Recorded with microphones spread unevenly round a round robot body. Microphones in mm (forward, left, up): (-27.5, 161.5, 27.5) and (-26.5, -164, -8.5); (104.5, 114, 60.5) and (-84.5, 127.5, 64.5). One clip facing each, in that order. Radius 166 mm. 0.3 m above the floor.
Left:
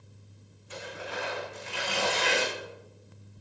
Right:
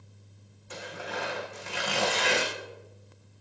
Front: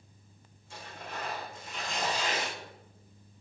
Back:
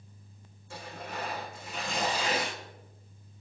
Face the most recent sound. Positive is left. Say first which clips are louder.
# right 1 dB, back 3 dB
turn(degrees=-130)